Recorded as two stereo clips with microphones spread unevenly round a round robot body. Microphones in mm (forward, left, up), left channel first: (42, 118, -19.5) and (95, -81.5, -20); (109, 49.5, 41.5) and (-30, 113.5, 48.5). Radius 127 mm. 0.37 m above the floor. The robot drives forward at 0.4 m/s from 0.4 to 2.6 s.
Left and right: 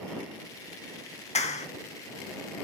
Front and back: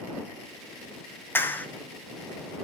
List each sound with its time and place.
1.4 s a clap: 50° left, 2 m; by 1.7 s 55° left, 2 m